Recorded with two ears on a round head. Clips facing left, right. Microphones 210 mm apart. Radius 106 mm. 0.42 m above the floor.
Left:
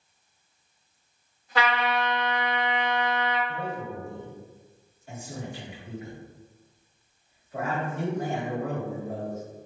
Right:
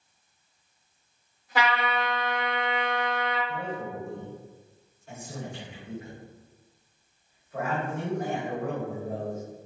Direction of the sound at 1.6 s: 10° right (ahead or behind).